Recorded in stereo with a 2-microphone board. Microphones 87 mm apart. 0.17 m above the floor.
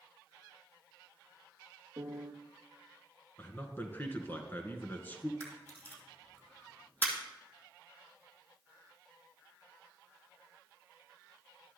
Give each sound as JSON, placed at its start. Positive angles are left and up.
{"t": 2.0, "sound": "a piano", "side_deg": -45, "distance_m": 1.2}
{"t": 3.4, "sound": "a man speaking", "side_deg": 25, "distance_m": 1.6}
{"t": 5.4, "sound": "a camera shutter", "side_deg": 20, "distance_m": 2.5}